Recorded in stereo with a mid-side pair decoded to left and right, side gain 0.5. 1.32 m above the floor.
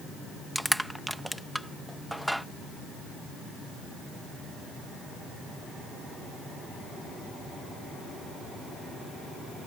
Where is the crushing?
5° right.